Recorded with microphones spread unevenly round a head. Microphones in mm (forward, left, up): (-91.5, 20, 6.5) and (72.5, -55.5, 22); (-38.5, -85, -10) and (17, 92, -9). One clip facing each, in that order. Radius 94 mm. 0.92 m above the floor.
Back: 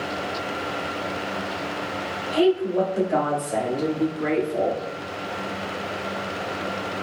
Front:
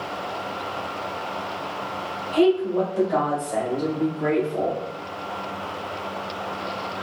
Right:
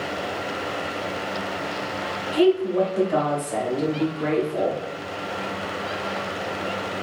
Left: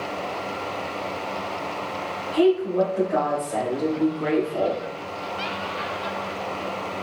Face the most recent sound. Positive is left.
turn(degrees=-175)